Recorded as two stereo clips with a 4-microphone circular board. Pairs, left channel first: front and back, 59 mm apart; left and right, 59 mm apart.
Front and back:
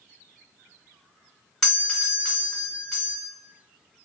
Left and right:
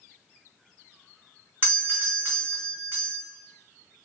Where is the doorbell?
75° right, 1.9 m.